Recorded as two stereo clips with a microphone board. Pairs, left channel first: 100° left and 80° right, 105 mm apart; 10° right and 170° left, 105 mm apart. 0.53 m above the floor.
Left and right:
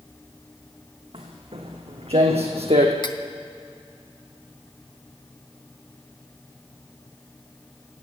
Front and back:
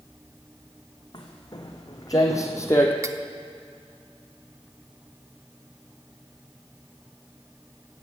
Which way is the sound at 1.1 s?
60° right.